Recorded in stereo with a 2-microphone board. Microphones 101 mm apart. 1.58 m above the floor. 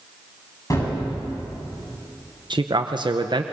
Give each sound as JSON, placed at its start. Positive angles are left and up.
{"t": 0.7, "sound": "a gunshot", "side_deg": 40, "distance_m": 8.0}
{"t": 2.5, "sound": "a man speaking", "side_deg": -55, "distance_m": 0.8}